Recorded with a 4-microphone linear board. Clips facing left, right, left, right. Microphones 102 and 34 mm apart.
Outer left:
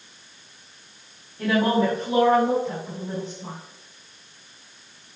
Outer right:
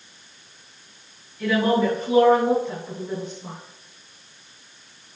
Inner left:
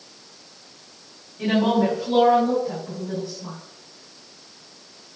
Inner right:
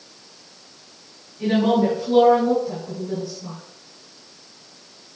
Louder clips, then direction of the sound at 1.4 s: Outer right 1 dB, inner right 1 dB; 40° left (ahead or behind).